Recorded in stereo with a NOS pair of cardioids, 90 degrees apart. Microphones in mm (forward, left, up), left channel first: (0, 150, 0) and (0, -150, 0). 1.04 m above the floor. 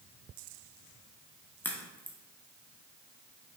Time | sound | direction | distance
1.6 | a crack | 5° left | 0.7 m